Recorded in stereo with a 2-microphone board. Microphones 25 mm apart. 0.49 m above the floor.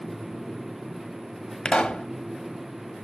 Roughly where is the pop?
Left.